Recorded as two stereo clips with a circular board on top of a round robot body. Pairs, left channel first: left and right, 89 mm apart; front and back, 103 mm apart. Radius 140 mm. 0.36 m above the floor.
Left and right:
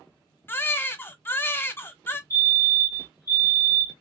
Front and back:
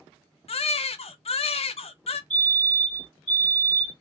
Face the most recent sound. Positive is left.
turn(degrees=70)